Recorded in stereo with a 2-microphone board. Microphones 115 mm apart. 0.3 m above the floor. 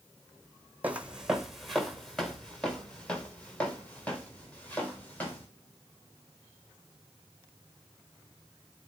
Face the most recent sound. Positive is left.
turn(degrees=15)  # may be behind; listen again after turning